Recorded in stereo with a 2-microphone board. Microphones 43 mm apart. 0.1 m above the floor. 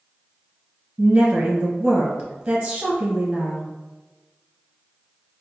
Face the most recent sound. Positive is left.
turn(degrees=-15)  # may be behind; listen again after turning